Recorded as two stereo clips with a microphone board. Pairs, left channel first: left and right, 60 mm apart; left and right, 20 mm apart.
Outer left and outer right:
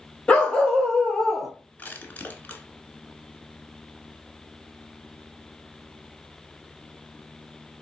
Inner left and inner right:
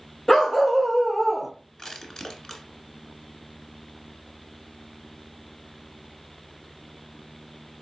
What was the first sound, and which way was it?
A dog barking, 15° left (ahead or behind).